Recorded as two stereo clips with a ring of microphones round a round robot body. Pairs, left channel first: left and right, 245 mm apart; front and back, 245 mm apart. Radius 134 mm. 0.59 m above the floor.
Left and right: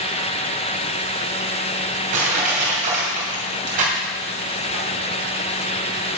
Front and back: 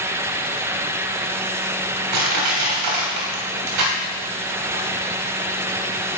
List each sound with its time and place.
2.1 s crushing: 155° right, 2.5 m